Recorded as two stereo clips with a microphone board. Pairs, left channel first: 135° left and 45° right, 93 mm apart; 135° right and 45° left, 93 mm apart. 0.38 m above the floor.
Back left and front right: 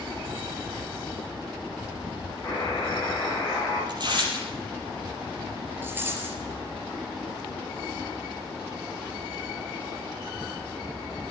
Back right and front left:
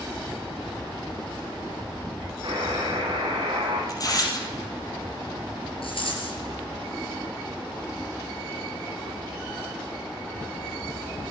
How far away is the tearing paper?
About 4.5 m.